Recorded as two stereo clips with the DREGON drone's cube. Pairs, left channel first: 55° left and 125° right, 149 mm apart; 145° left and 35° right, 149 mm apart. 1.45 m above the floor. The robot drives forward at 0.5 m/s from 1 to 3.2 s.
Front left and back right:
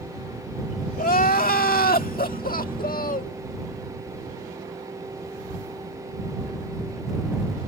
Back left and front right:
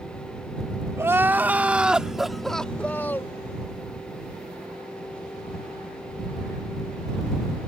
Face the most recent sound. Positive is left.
turn(degrees=70)